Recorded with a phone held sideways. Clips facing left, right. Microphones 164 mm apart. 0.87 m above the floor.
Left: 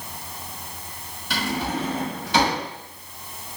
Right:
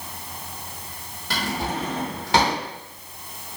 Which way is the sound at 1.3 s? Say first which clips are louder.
Left 1 dB; 80° right.